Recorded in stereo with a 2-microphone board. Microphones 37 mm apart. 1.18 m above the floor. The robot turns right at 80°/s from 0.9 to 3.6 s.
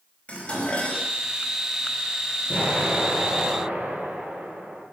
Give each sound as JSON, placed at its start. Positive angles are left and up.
{"t": 0.3, "sound": "dishes clattering", "side_deg": 35, "distance_m": 5.0}
{"t": 2.5, "sound": "an explosion", "azimuth_deg": -150, "distance_m": 9.5}